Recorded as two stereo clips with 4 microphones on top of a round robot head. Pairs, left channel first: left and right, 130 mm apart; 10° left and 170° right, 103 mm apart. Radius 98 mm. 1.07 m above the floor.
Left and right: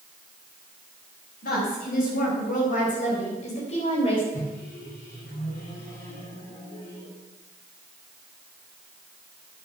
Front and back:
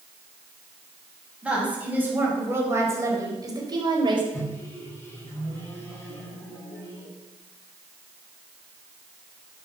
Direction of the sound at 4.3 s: 75° left.